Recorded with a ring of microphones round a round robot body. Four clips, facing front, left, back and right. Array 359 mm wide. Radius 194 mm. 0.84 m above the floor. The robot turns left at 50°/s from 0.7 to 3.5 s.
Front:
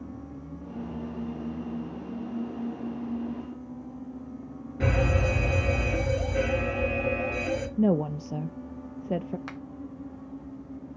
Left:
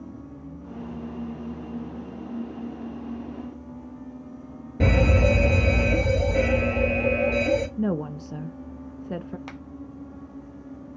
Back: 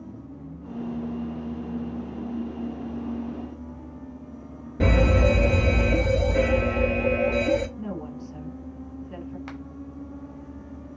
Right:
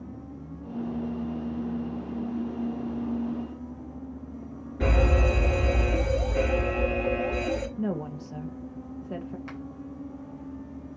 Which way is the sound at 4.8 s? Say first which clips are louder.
Left 4 dB, back 5 dB; 130° left.